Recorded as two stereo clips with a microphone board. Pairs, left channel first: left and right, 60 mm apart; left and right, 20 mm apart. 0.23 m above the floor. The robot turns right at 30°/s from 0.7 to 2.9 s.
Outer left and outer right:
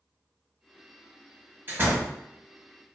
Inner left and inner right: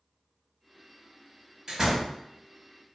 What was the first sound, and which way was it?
A door slam, 35° right (ahead or behind).